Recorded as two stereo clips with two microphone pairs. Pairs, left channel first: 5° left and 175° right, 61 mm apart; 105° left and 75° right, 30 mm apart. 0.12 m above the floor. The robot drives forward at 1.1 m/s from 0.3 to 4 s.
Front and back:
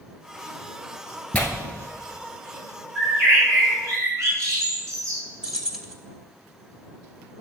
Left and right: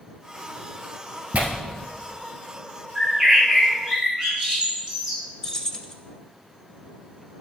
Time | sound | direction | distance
1.3 | tearing paper | 55° right | 1.2 m
3.0 | a bird | 135° right | 3 m
5.4 | keys jangling | 125° left | 0.7 m